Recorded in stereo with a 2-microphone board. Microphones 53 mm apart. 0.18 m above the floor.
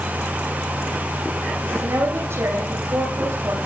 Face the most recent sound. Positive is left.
turn(degrees=-50)  # may be behind; listen again after turning